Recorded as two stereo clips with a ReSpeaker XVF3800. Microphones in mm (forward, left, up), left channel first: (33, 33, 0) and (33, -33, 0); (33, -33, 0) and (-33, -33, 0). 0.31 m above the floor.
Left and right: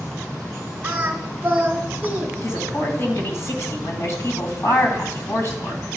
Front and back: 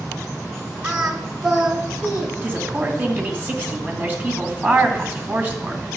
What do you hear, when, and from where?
0.8 s singing: 120° right, 1.2 m
2.4 s a woman speaking: 125° left, 2.5 m